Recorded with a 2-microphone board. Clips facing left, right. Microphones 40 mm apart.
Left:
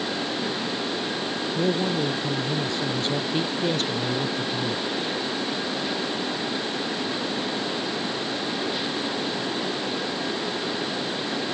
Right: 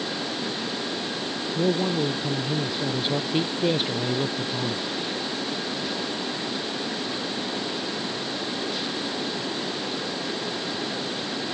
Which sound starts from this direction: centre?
A man speaking, at 1.6 s.